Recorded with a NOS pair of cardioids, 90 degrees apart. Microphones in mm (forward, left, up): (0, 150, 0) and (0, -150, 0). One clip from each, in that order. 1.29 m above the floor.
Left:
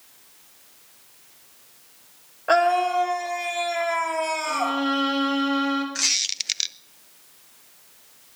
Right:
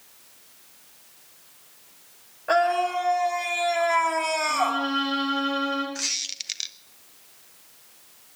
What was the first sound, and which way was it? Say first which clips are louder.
A scream: left 3 dB; 25° left.